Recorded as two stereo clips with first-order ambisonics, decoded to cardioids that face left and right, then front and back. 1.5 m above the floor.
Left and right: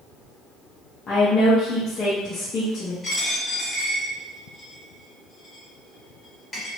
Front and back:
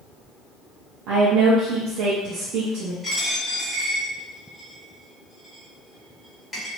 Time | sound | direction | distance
1.1 | a woman speaking | 155° left | 0.7 m
3.0 | a dropped coin | 60° left | 1.0 m